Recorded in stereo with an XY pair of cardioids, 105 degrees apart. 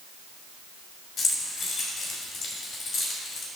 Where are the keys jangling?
50° left, 3.5 m.